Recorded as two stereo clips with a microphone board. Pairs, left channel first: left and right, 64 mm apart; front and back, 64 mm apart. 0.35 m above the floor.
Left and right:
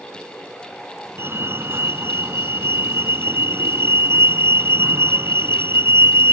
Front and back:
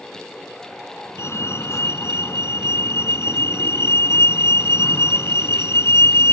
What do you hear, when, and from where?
1.2 s a fire alarm: 45° right